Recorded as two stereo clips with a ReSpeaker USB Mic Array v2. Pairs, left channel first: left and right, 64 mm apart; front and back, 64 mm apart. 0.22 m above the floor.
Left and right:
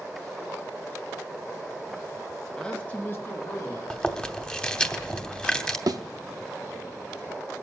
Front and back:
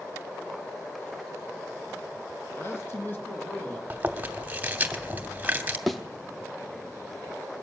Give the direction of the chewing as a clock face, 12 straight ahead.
7 o'clock.